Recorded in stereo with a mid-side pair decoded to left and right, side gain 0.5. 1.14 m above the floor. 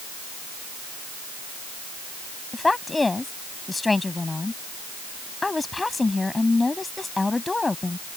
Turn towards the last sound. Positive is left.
turn(degrees=20)